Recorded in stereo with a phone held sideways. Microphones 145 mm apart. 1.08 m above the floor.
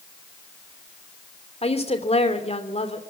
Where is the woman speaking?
45° left (ahead or behind), 3 m.